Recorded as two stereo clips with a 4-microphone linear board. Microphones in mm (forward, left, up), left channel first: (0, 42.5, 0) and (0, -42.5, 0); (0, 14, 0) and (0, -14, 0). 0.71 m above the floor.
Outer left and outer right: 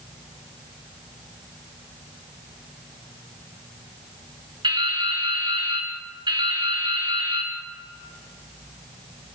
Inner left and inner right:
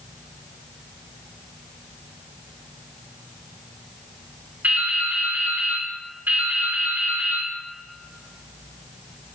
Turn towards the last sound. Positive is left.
turn(degrees=-75)  # may be behind; listen again after turning